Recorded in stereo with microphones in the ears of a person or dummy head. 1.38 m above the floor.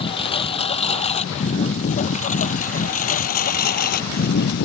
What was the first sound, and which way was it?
A lawn mower, 30° left (ahead or behind).